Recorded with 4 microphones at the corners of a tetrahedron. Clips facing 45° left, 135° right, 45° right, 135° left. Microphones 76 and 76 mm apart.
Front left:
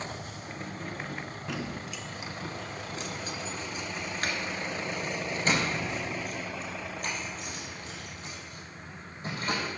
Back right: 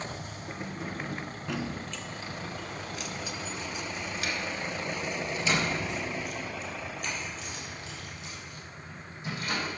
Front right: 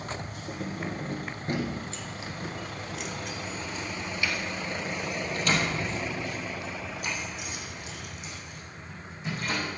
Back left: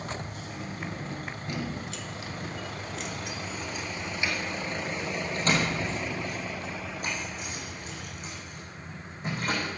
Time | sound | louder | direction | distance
0.5 | keys jangling | back right 2 dB, front right 5 dB | 60° right | 2 m